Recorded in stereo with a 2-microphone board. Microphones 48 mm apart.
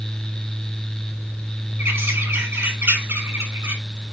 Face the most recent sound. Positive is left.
turn(degrees=-80)